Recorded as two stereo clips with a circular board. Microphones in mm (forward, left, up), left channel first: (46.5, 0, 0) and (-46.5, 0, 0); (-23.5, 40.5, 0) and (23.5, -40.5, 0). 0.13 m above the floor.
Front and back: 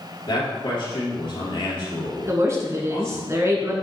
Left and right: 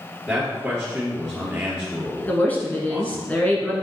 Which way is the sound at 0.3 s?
20° left.